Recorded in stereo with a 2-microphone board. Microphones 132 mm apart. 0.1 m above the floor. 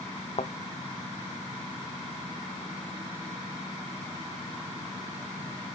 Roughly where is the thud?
Left.